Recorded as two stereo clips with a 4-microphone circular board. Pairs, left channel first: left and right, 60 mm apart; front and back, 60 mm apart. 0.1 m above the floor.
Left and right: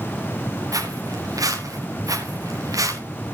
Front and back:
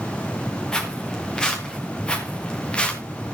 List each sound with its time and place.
0.7 s footsteps: 80° right, 5 m; by 3.0 s 70° right, 3.5 m